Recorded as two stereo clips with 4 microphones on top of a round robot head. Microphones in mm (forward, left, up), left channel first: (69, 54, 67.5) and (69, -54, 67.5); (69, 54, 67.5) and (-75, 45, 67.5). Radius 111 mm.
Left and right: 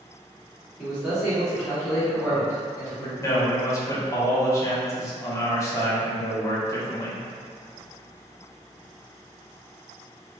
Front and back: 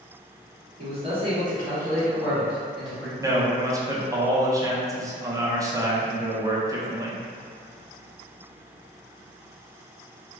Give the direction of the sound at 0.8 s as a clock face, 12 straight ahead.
6 o'clock.